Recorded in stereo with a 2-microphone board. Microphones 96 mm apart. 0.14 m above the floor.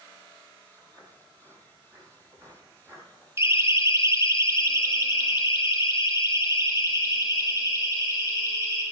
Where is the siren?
30° right (ahead or behind), 2 m; by 8.8 s 35° right (ahead or behind), 7 m.